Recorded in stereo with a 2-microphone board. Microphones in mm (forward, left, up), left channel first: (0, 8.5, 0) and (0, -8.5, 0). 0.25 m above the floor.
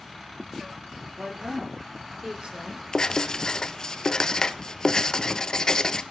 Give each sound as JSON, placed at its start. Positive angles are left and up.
{"t": 1.2, "sound": "a woman speaking", "side_deg": -75, "distance_m": 8.5}
{"t": 2.9, "sound": "writing", "side_deg": 45, "distance_m": 0.9}